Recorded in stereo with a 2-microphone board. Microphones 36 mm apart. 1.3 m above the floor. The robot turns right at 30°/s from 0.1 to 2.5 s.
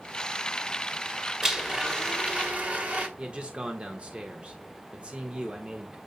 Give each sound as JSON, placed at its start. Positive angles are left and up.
{"t": 1.4, "sound": "a blender", "azimuth_deg": -170, "distance_m": 2.0}
{"t": 3.2, "sound": "a man speaking", "side_deg": -30, "distance_m": 1.5}